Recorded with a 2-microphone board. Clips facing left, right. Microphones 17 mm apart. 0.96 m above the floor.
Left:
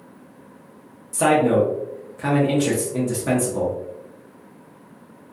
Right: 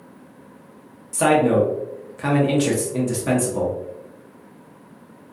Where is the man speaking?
20° right (ahead or behind), 0.6 m.